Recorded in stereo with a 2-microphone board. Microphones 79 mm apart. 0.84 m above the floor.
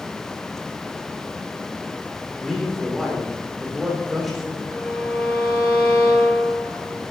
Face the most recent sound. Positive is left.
turn(degrees=40)  # may be behind; listen again after turning